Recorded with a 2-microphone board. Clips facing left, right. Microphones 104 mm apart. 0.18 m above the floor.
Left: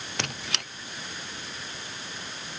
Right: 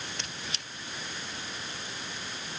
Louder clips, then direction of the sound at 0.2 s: Left 6 dB; 70° left (ahead or behind).